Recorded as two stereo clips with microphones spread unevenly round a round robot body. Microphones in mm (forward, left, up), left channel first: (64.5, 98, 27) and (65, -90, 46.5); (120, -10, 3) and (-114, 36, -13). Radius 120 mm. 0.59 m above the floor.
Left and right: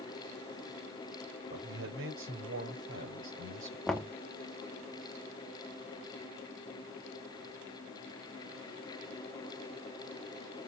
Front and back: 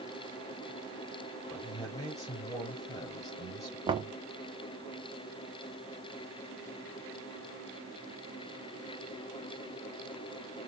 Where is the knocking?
155° left, 0.6 m.